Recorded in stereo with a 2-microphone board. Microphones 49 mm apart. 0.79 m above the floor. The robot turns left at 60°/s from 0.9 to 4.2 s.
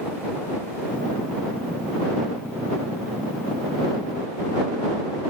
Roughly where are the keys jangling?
I don't hear keys jangling.